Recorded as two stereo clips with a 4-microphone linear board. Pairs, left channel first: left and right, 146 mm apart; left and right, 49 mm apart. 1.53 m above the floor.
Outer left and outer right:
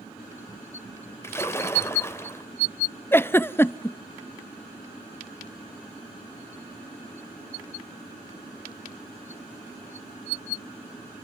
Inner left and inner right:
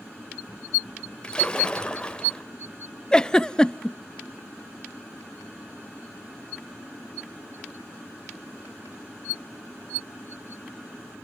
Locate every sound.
1.2 s a splash: 20° left (ahead or behind), 2 m
3.1 s a giggle: 15° left (ahead or behind), 0.5 m